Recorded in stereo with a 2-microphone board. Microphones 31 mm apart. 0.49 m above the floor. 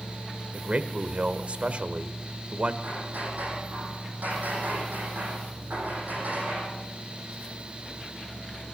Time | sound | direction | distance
0.5 | a man speaking | 50° right (ahead or behind) | 1.5 m
2.8 | hammering | 65° right (ahead or behind) | 8.5 m